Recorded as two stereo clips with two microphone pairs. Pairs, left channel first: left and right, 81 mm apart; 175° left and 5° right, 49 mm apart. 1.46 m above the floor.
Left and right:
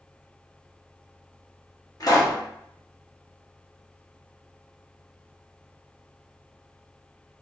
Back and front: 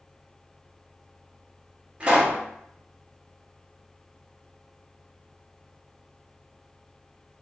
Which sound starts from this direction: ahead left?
A pop, at 2.0 s.